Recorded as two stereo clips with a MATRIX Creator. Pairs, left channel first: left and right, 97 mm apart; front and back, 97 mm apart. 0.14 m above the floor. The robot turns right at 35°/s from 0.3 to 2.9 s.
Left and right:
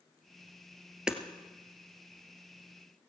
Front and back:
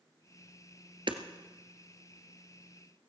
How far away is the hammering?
About 1.4 m.